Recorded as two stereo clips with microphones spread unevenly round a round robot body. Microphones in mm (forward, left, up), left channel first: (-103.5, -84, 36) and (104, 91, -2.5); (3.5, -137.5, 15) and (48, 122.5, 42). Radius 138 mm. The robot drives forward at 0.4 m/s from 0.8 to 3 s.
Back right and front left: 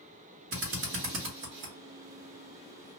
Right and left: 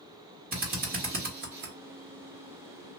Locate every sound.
0.5 s a drill: 25° left, 1.4 m; by 1.7 s 40° left, 1.1 m